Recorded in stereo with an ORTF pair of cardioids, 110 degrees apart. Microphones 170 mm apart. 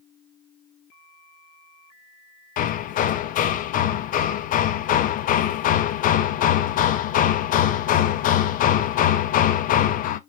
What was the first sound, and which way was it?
Hammering, 55° left.